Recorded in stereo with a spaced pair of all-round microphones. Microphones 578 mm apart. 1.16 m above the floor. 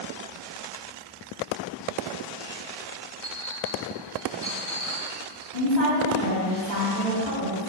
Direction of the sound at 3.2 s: 55° right (ahead or behind).